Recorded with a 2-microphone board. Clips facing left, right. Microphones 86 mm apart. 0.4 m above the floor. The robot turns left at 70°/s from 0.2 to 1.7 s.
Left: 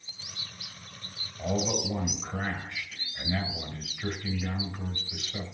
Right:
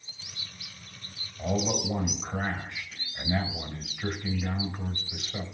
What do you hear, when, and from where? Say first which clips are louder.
1.4 s a man speaking: right 1 dB; 5° left (ahead or behind), 2 m; by 5.4 s 10° right (ahead or behind), 2 m